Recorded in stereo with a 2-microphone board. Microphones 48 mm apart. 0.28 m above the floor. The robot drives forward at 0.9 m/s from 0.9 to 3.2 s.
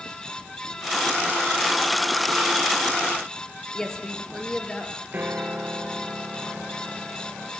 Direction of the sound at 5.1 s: 40° right (ahead or behind).